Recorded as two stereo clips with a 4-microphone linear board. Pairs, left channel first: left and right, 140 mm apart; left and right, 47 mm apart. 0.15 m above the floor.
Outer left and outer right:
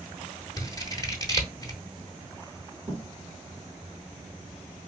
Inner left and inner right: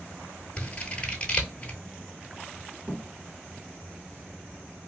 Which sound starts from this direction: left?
Scissors, at 0.6 s.